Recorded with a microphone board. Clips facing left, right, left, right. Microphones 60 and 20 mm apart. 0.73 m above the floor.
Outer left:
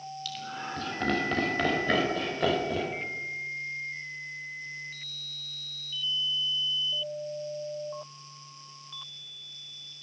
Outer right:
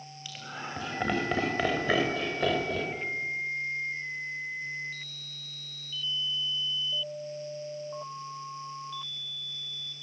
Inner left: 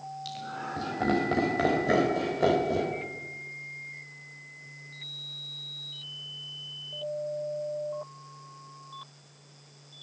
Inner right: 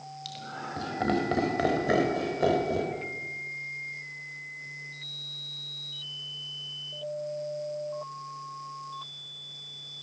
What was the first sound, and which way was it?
Laughter, 20° right (ahead or behind).